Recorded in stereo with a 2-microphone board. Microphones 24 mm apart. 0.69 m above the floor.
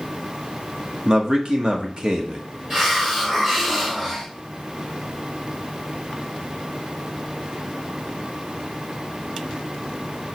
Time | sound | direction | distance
1.1 | a man speaking | 35° right (ahead or behind) | 1.5 m
2.7 | a hiss | 15° right (ahead or behind) | 4 m